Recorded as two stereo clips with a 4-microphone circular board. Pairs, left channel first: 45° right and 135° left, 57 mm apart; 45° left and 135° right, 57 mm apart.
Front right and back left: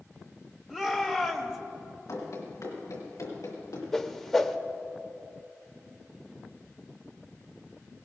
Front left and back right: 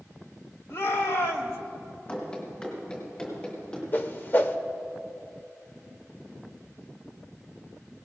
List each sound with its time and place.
0.7 s a shout: 50° left, 1.7 m
2.1 s running footsteps: 20° right, 5.5 m; by 3.8 s 30° right, 5 m
3.9 s a whoosh: 40° left, 0.7 m